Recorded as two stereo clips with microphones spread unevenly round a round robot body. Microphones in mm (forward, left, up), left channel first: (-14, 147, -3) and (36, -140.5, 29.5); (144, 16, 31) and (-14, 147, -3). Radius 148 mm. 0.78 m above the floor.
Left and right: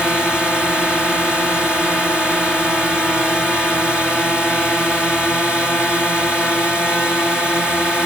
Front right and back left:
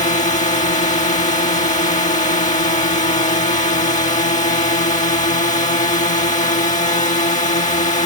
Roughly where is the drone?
Ahead.